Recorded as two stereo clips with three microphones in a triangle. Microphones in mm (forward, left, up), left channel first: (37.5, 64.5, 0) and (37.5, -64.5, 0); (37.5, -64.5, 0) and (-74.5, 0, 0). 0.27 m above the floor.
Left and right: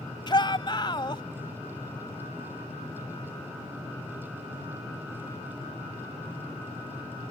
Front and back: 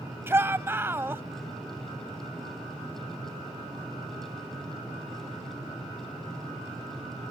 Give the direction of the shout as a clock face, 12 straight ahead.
9 o'clock.